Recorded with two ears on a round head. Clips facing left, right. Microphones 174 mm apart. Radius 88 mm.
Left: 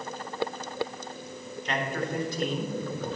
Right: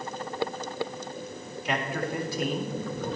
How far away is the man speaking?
About 1.3 m.